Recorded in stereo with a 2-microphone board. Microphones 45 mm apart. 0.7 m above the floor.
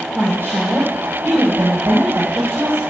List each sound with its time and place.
0.1 s a woman speaking: 55° right (ahead or behind), 3 m